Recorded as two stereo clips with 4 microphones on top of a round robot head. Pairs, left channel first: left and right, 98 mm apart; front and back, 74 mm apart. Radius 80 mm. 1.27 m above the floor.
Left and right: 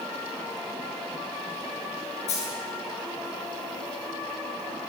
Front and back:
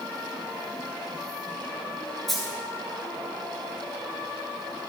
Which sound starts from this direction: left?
A dropped coin, at 2.3 s.